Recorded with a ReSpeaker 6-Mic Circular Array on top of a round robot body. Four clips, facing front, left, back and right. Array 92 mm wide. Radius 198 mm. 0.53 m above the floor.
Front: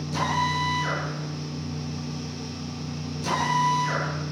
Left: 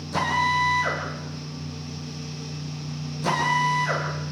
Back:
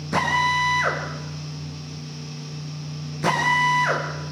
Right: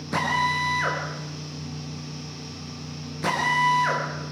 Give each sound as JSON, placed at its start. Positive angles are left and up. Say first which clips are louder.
{"t": 0.1, "sound": "a drill", "louder": "left 1 dB, back 4 dB", "azimuth_deg": -145, "distance_m": 6.5}